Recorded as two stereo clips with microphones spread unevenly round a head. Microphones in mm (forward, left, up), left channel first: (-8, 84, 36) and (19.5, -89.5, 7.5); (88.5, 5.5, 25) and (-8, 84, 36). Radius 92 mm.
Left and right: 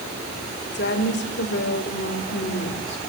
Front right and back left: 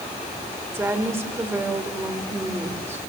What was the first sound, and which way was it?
A woman speaking, 70° left.